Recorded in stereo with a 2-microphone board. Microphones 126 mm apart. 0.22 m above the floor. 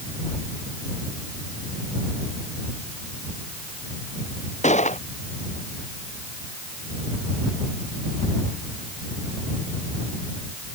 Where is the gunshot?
70° left (ahead or behind).